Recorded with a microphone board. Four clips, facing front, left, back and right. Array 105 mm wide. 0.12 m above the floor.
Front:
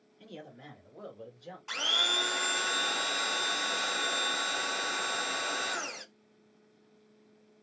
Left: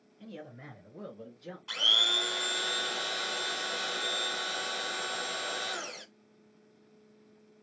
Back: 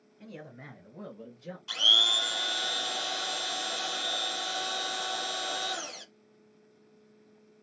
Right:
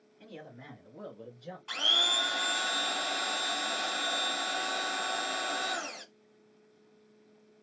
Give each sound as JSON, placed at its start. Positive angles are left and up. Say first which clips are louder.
{"t": 0.2, "sound": "a man speaking", "louder": "left 2 dB, back 1 dB", "azimuth_deg": -170, "distance_m": 1.4}
{"t": 1.7, "sound": "a blender", "louder": "right 1 dB, even", "azimuth_deg": -15, "distance_m": 0.8}